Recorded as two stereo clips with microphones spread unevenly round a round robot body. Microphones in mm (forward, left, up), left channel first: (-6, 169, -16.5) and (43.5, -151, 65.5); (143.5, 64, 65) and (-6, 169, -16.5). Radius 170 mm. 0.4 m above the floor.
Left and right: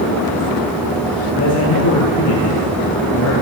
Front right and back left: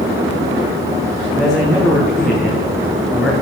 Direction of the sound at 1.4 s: 55° left.